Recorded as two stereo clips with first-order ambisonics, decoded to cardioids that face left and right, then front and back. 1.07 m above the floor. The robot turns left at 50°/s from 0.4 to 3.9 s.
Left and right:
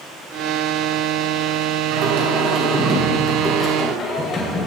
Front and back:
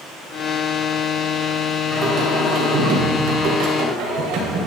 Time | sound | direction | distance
1.9 | singing | 110° right | 4 m